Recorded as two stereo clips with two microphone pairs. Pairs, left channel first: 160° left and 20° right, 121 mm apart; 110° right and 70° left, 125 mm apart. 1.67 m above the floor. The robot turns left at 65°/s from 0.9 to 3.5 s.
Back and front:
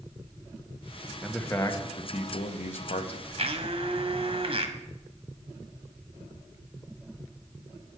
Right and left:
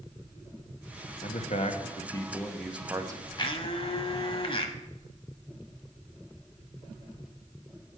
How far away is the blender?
About 0.9 m.